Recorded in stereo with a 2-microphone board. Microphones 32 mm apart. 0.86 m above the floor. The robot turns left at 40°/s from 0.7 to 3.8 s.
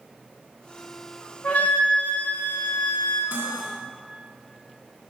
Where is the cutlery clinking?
75° right (ahead or behind), 1.1 m; by 3.7 s 55° right (ahead or behind), 1.1 m.